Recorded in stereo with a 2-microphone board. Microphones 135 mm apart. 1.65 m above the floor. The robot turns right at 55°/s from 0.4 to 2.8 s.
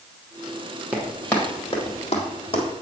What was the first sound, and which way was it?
Running footsteps, 10° right (ahead or behind).